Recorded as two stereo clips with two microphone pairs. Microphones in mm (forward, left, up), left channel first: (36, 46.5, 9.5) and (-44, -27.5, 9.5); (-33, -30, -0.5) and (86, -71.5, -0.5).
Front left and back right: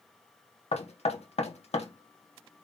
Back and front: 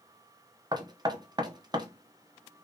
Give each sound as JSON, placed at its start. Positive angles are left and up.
{"t": 0.7, "sound": "knocking", "azimuth_deg": 30, "distance_m": 1.0}